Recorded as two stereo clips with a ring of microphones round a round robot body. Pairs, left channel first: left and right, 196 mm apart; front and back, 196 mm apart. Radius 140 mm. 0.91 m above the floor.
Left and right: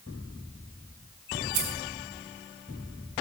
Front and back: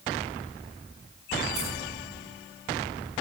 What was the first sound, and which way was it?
Keys jangling, 105° right.